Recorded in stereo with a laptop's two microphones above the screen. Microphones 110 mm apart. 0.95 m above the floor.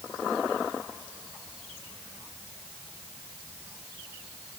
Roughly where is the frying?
No frying in this recording.